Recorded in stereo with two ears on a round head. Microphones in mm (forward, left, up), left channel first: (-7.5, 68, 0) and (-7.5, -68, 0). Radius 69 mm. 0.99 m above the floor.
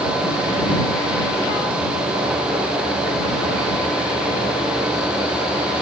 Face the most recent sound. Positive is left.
No sound to turn to.